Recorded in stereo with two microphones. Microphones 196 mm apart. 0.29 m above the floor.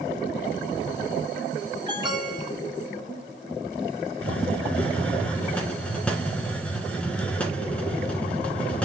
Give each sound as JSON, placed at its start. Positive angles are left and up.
{"t": 1.9, "sound": "an alarm", "side_deg": -20, "distance_m": 4.5}
{"t": 4.2, "sound": "a hiss", "side_deg": 5, "distance_m": 2.0}